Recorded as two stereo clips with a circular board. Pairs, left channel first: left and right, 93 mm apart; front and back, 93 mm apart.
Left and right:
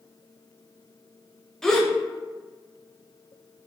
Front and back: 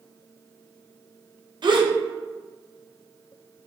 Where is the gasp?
175° left, 0.5 m.